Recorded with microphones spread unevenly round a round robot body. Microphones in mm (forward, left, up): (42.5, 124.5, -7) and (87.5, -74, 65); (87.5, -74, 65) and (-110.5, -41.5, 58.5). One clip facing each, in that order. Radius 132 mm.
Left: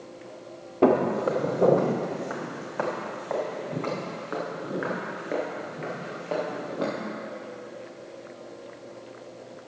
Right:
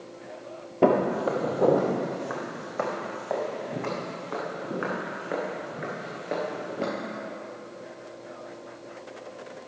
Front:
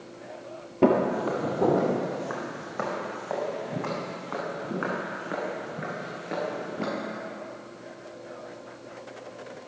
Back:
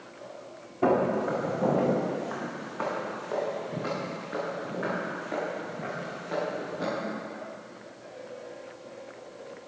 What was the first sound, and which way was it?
Footsteps, 10° right.